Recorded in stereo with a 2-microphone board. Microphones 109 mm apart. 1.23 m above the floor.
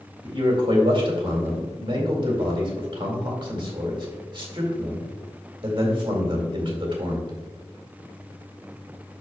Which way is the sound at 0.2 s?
50° right (ahead or behind).